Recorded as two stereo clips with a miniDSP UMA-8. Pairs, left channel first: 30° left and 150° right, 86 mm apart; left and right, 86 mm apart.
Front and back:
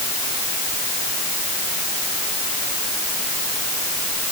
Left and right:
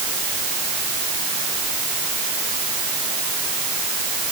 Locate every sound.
Only background noise.